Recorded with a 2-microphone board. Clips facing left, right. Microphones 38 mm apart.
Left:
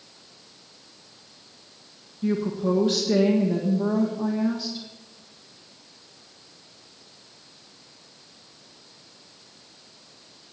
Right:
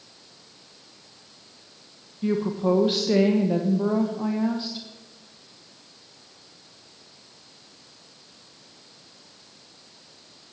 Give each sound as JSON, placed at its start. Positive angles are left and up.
{"t": 2.2, "sound": "a woman speaking", "side_deg": -25, "distance_m": 1.3}